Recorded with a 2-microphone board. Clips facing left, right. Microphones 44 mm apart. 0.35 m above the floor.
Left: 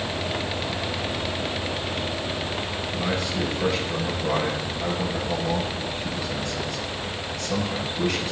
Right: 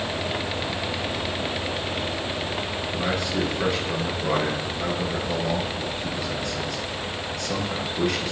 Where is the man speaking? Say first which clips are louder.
Right 1 dB; 70° right (ahead or behind), 5 m.